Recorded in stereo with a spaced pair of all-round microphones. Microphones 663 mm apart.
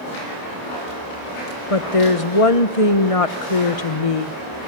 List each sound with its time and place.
1.7 s a woman speaking: 55° left (ahead or behind), 1.2 m